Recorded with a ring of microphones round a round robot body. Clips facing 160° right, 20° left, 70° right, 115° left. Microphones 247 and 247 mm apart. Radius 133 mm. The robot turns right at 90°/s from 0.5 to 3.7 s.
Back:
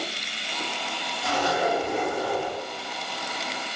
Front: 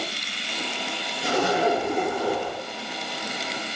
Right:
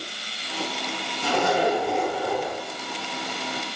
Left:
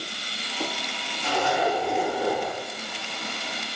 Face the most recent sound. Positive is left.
turn(degrees=180)